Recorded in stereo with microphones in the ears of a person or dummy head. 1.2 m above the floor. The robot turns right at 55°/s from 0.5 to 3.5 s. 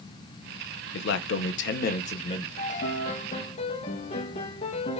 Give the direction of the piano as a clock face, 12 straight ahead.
10 o'clock.